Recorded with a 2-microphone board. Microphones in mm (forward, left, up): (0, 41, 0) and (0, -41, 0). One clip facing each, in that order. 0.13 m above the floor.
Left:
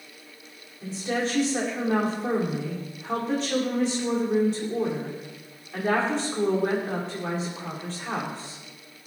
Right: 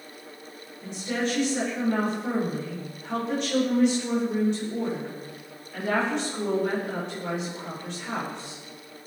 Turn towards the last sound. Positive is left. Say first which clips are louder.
# left 1 dB
turn(degrees=35)  # may be behind; listen again after turning